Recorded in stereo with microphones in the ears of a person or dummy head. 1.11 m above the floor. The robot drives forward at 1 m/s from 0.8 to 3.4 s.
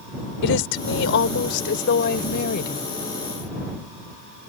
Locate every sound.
0.4 s a woman speaking: 70° left (ahead or behind); by 2.9 s 45° left (ahead or behind)